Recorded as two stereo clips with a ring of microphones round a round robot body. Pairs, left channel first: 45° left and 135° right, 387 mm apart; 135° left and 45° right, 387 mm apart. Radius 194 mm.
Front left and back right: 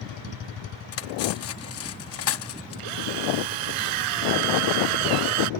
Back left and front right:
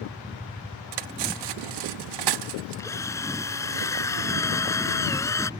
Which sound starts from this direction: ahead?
Cutlery clinking, at 0.9 s.